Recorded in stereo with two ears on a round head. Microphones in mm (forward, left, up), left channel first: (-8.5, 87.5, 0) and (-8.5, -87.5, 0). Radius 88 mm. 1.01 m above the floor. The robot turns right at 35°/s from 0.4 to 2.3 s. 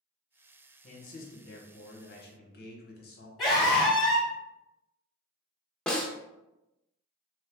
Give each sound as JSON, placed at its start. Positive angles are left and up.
{"t": 0.8, "sound": "a man speaking", "azimuth_deg": 50, "distance_m": 0.9}
{"t": 3.4, "sound": "a scream", "side_deg": 0, "distance_m": 1.2}
{"t": 5.9, "sound": "a snare drum", "side_deg": 5, "distance_m": 0.6}